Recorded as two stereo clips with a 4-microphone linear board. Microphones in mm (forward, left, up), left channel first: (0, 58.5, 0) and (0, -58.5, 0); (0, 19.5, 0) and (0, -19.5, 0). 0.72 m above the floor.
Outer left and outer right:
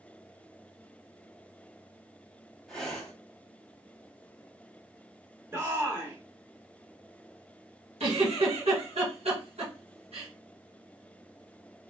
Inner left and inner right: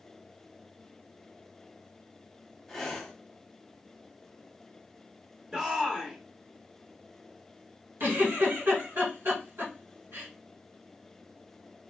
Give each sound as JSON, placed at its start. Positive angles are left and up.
{"t": 2.7, "sound": "breathing", "side_deg": 5, "distance_m": 1.4}
{"t": 5.5, "sound": "a shout", "side_deg": -20, "distance_m": 1.1}
{"t": 8.0, "sound": "a giggle", "side_deg": -70, "distance_m": 2.5}